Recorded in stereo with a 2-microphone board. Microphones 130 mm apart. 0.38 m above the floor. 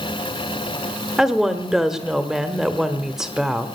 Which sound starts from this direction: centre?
A woman speaking, at 1.2 s.